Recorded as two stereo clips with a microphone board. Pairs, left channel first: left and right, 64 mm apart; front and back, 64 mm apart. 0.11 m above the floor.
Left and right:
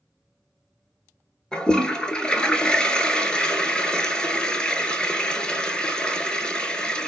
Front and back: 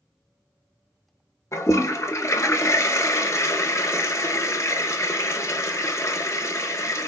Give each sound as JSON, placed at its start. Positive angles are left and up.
{"t": 1.5, "sound": "a toilet flushing", "azimuth_deg": 15, "distance_m": 0.5}